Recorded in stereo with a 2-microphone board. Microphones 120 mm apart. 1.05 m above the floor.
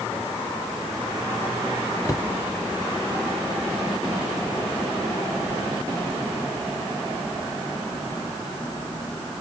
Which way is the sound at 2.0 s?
30° left (ahead or behind).